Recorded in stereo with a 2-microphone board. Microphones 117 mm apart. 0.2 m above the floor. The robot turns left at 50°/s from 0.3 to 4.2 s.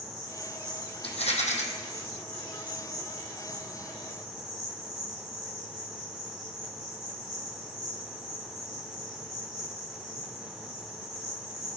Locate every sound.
0.0 s an insect: 135° left, 4 m; by 11.8 s 60° right, 4 m
1.0 s a rattle: 55° left (ahead or behind), 1.6 m; by 1.6 s 85° left, 1.6 m